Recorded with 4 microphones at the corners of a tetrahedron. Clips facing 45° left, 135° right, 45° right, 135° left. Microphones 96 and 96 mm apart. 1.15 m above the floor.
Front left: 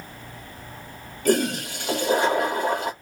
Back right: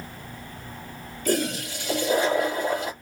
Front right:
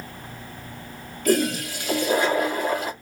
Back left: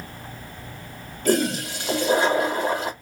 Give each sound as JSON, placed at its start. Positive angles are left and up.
{"t": 1.2, "sound": "a toilet flushing", "azimuth_deg": 75, "distance_m": 1.2}